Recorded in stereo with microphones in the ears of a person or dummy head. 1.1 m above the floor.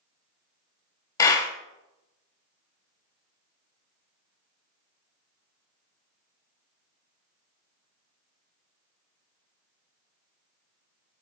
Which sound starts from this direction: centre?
A clap, at 1.2 s.